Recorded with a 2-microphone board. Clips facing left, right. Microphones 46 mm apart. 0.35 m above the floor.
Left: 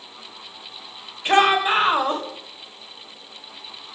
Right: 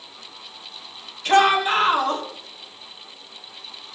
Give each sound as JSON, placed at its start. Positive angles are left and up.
{"t": 1.2, "sound": "a shout", "side_deg": 20, "distance_m": 1.7}